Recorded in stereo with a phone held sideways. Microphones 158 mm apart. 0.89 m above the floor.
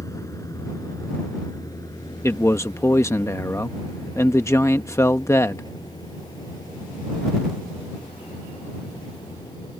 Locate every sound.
0.0 s a vehicle: 20° left (ahead or behind); by 9.8 s 25° left (ahead or behind)
2.2 s a man speaking: 15° left (ahead or behind)